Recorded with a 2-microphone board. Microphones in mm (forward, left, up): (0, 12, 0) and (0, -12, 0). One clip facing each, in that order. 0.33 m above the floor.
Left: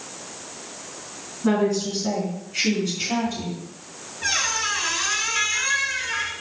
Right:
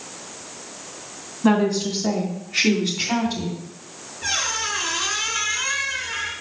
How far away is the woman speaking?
About 2.5 m.